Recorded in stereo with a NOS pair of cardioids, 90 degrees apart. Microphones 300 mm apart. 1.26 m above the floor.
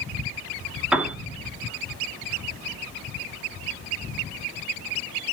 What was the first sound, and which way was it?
A piano, 5° right.